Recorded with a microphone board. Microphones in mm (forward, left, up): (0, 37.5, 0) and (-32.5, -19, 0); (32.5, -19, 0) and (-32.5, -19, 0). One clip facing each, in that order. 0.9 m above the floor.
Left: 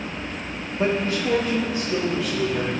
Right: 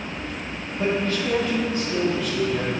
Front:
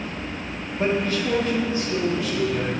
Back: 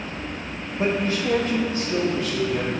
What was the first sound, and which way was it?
A man speaking, 100° left.